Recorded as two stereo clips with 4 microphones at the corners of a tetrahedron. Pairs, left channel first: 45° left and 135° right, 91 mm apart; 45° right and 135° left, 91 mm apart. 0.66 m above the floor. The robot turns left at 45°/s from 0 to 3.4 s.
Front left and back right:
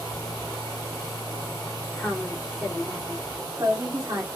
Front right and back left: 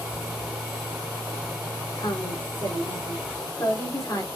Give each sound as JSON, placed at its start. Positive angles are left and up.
{"t": 1.9, "sound": "a woman speaking", "azimuth_deg": -30, "distance_m": 1.8}